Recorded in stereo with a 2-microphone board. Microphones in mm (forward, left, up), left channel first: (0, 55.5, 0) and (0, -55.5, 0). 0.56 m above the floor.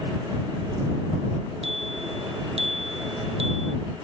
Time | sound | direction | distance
1.6 | a bicycle bell | 65° right (ahead or behind) | ?